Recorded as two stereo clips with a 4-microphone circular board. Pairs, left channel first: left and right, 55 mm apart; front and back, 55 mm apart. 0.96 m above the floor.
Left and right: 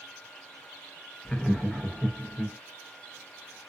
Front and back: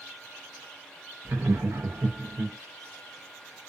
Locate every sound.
1.2 s laughter: 165° left, 0.7 m